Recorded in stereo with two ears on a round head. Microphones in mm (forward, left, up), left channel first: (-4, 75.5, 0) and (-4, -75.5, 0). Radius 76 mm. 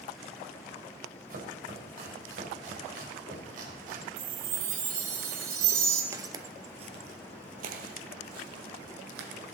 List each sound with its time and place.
1.3 s chopping: 55° right (ahead or behind), 3 m
4.2 s a chime: 60° right (ahead or behind), 2.5 m
6.1 s footsteps: 15° right (ahead or behind), 1.0 m; by 9.3 s 70° right (ahead or behind), 2 m